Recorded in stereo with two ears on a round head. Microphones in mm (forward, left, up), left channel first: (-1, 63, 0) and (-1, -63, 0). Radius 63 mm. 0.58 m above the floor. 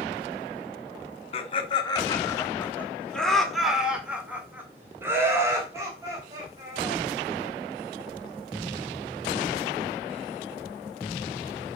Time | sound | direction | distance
1.3 | laughter | 40° left (ahead or behind) | 1.5 m